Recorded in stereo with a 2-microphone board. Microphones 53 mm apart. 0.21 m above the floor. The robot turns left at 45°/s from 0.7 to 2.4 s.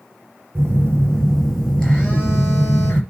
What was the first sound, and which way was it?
A phone buzzing, 140° right.